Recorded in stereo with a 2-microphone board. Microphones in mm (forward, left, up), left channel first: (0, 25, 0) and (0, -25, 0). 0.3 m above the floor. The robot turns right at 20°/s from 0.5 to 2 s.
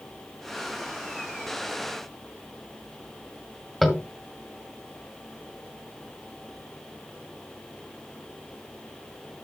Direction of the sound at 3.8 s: Centre (ahead or behind).